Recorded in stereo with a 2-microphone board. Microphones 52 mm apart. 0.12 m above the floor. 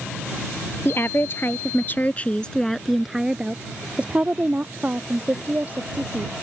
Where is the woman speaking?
50° left (ahead or behind); by 6.3 s 35° right (ahead or behind).